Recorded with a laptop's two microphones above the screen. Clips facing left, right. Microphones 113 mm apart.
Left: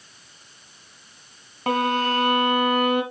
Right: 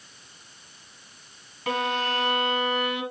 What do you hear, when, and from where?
1.7 s a violin: 50° left (ahead or behind), 1.1 m